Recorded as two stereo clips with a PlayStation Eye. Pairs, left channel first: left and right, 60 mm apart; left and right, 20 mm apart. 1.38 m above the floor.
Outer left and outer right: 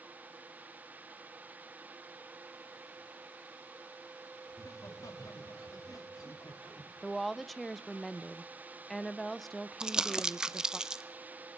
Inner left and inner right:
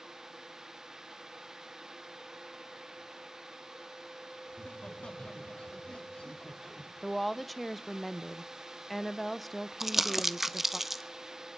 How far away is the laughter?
About 2.5 m.